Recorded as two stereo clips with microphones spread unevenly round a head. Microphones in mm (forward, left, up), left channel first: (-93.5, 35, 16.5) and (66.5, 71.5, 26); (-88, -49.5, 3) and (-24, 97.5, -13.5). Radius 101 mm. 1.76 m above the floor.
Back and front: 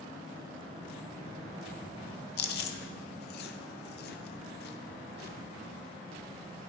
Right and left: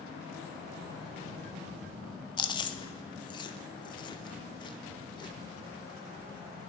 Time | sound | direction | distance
2.4 | chewing | 165° right | 0.6 m